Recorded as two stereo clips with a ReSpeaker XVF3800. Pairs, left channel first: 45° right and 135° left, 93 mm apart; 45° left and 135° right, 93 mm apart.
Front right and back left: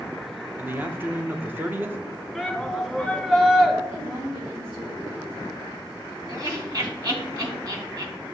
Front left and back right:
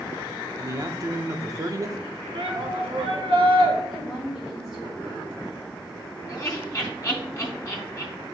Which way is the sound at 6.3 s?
95° left.